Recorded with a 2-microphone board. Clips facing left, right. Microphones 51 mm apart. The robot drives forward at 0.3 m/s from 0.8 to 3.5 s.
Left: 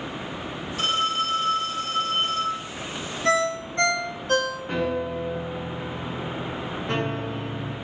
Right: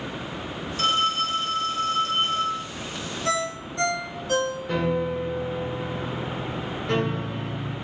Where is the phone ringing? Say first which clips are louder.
Right 1 dB; 70° left (ahead or behind), 3.5 m; by 2.6 s 75° left (ahead or behind), 3 m.